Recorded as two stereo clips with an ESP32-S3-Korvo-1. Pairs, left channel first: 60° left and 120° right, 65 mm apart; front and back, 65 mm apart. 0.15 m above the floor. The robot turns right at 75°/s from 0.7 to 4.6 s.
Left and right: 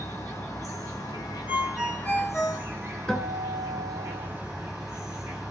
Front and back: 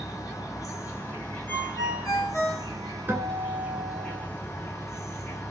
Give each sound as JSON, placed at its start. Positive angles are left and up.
{"t": 0.0, "sound": "an insect", "azimuth_deg": 30, "distance_m": 1.3}
{"t": 1.5, "sound": "a ringtone", "azimuth_deg": -55, "distance_m": 1.3}
{"t": 3.1, "sound": "a guitar", "azimuth_deg": 135, "distance_m": 1.0}